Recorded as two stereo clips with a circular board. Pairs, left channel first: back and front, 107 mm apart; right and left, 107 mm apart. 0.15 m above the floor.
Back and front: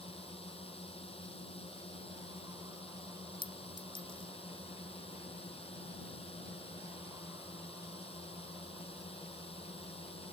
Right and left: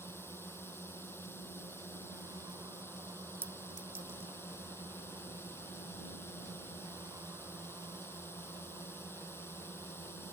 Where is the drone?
160° right.